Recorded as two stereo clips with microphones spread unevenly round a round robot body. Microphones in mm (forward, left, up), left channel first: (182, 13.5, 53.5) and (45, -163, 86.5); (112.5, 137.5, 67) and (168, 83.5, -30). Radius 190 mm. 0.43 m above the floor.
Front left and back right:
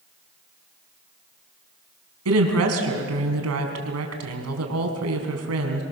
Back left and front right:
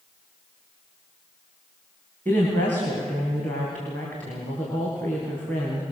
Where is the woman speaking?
130° right, 4.5 m.